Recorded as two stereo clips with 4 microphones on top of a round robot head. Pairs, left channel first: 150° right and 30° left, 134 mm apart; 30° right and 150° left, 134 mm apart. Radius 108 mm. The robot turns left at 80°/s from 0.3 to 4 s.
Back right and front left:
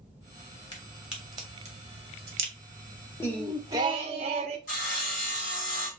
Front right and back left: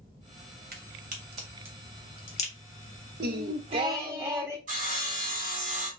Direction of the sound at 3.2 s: 140° left.